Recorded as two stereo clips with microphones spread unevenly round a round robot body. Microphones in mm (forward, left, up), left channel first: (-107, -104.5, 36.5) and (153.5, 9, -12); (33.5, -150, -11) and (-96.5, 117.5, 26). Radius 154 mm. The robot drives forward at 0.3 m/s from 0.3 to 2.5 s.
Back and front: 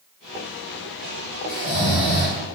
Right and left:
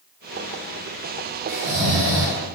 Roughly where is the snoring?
Behind.